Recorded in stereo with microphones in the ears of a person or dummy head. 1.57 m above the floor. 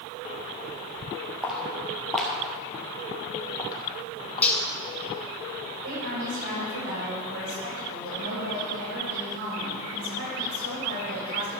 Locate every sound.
1.4 s footsteps: centre (ahead or behind), 2 m; by 4.6 s 30° left (ahead or behind), 3 m
4.4 s cutlery clinking: 10° left (ahead or behind), 1.3 m
5.8 s a woman speaking: 85° right, 5.5 m